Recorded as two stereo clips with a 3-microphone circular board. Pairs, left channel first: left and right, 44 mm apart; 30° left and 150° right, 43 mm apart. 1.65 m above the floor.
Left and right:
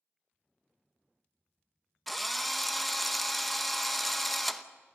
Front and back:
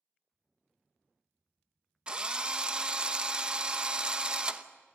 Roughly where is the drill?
Behind.